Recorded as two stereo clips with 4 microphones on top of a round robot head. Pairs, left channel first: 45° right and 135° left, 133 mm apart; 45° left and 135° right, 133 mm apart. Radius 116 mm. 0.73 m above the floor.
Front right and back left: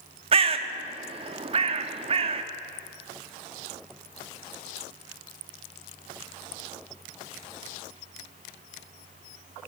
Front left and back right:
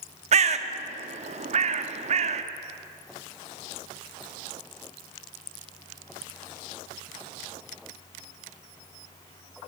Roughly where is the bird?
Behind.